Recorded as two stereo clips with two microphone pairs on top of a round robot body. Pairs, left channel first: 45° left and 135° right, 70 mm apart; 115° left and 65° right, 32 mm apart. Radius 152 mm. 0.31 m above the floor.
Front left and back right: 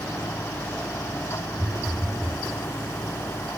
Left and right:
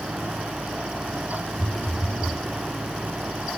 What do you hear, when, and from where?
1.6 s a phone buzzing: 50° right, 3.5 m